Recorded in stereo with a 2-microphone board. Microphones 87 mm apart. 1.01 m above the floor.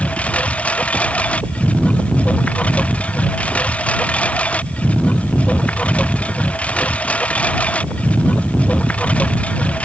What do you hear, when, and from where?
0.0 s a lawn mower: 15° left (ahead or behind)